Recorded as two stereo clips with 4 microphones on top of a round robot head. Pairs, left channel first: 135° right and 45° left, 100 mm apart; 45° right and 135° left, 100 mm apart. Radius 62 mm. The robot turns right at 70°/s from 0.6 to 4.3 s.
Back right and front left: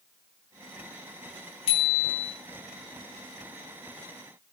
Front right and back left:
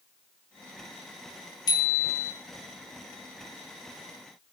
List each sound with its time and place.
1.7 s a bicycle bell: 95° right, 3.5 m; by 2.3 s 50° right, 3.5 m